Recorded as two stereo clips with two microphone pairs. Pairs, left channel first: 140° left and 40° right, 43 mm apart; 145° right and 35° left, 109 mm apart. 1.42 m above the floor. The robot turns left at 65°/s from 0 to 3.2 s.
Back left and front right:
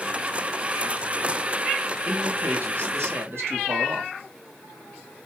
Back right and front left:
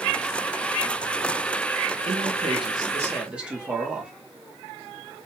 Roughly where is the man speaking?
Ahead left.